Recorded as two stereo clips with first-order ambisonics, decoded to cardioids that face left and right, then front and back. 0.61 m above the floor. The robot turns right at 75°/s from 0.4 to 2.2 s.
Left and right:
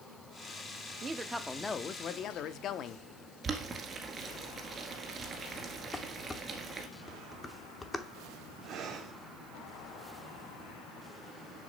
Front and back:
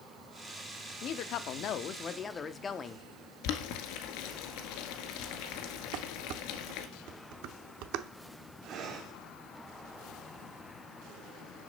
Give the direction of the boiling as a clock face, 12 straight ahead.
1 o'clock.